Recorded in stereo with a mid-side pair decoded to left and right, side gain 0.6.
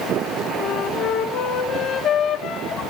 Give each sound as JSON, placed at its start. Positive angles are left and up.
{"t": 0.6, "sound": "a flute", "azimuth_deg": 60, "distance_m": 3.5}